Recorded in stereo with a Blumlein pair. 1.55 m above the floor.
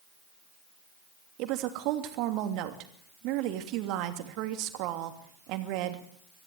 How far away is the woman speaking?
About 3 m.